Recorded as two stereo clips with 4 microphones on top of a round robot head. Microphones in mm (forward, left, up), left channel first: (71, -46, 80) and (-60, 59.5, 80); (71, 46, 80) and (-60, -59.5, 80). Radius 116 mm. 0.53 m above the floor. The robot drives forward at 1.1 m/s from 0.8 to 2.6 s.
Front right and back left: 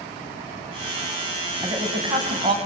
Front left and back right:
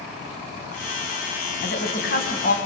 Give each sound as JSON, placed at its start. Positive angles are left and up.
{"t": 1.6, "sound": "a woman speaking", "azimuth_deg": 70, "distance_m": 5.0}